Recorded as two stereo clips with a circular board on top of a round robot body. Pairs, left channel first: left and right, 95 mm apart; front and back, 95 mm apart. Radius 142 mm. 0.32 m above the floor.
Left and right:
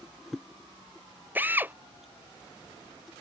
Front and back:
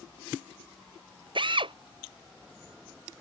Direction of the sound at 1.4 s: 160° right.